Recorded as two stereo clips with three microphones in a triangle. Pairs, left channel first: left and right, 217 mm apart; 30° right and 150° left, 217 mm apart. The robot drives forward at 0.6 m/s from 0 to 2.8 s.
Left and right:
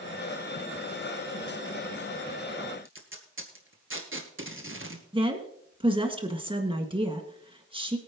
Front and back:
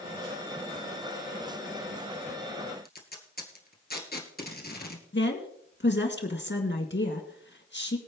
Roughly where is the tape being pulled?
Right.